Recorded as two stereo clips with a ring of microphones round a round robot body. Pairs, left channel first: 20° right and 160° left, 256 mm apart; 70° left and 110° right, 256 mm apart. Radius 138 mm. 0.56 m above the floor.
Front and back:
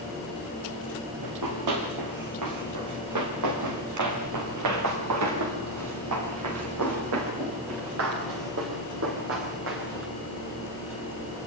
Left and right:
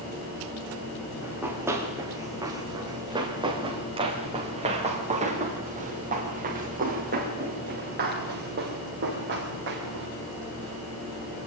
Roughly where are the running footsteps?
Behind.